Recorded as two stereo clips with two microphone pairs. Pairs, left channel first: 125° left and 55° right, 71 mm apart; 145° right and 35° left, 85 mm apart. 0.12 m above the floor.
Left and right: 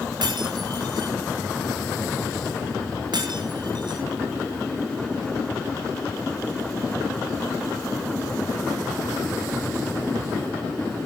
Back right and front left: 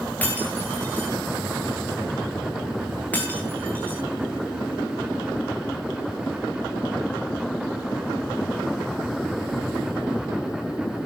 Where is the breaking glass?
75° right, 6 m.